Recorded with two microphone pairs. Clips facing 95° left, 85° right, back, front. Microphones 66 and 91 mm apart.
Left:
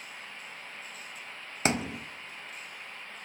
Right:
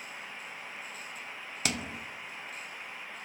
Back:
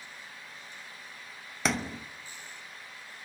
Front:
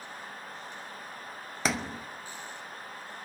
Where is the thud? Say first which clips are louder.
Left 6 dB, back 1 dB; 85° left, 1.1 m.